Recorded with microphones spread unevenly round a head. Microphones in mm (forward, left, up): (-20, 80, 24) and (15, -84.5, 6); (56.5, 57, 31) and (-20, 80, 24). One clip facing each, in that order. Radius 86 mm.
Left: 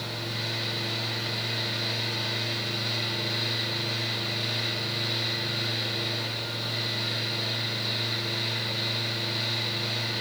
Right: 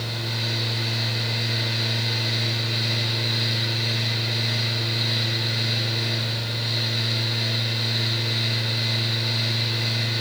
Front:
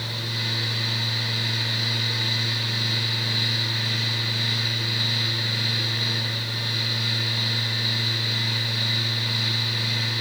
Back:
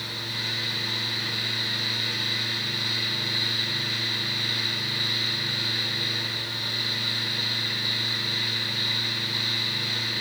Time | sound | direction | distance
0.0 | a fan | 60° right | 8.5 m